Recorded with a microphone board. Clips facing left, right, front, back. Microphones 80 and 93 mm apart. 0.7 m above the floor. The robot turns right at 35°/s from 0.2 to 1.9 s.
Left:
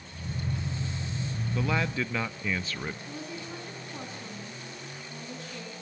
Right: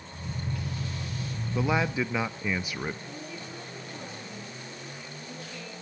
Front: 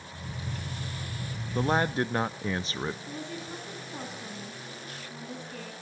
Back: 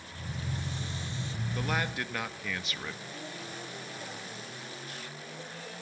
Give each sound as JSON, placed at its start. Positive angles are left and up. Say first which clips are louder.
{"t": 1.6, "sound": "a man speaking", "louder": "right 3 dB, front 8 dB", "azimuth_deg": -35, "distance_m": 0.6}
{"t": 3.1, "sound": "a woman speaking", "louder": "left 1 dB, front 4 dB", "azimuth_deg": 30, "distance_m": 6.0}